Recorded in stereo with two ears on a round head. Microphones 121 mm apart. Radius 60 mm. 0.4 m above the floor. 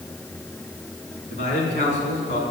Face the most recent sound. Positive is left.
turn(degrees=60)  # may be behind; listen again after turning